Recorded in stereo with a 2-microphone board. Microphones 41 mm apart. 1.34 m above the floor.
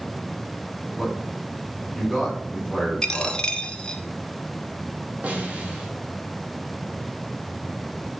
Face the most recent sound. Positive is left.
turn(degrees=-50)  # may be behind; listen again after turning